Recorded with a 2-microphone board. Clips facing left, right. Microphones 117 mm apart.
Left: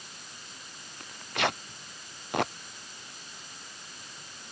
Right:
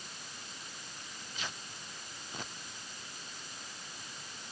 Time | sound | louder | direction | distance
1.0 | tearing paper | left 15 dB | 65° left (ahead or behind) | ?